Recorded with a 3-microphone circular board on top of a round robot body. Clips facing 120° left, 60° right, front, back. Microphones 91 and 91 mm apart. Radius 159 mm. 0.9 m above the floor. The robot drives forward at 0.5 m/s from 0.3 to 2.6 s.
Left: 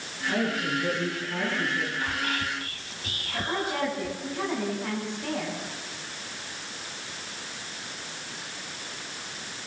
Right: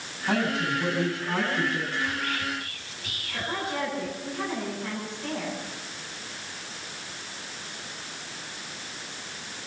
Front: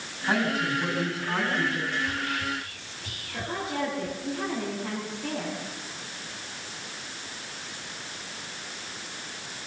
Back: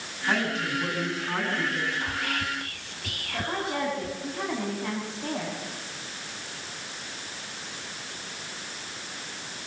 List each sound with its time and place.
0.3 s a woman speaking: 85° right, 9 m; by 1.9 s 90° right, 9 m
2.0 s whispering: 165° left, 1.0 m; by 4.2 s 170° left, 1.3 m
3.3 s a woman speaking: straight behind, 8.5 m